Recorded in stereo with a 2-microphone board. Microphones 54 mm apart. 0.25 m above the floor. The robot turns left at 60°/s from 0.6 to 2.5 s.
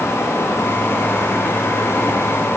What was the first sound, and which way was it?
Only background noise.